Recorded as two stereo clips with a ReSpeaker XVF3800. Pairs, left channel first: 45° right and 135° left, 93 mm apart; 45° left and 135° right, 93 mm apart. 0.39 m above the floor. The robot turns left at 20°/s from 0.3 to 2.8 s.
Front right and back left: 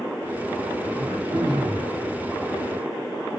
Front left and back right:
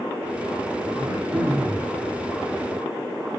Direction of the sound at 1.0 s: Straight behind.